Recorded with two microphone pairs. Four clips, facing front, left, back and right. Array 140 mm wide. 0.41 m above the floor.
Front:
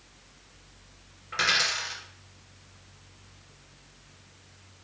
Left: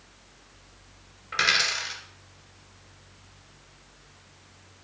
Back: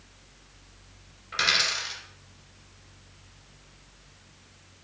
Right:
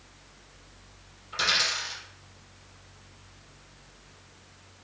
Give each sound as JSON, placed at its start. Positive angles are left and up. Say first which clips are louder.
{"t": 1.3, "sound": "a dropped coin", "louder": "left 3 dB, even", "azimuth_deg": 90, "distance_m": 2.5}